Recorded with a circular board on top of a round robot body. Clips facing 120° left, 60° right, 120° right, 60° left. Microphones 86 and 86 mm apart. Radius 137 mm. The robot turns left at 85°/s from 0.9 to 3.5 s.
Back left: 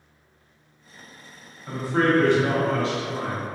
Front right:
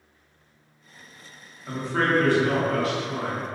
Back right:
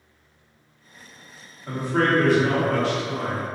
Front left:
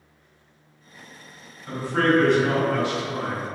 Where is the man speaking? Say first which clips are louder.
Back left 3 dB, even; 145° right, 1.4 m; by 3.5 s 60° left, 1.4 m.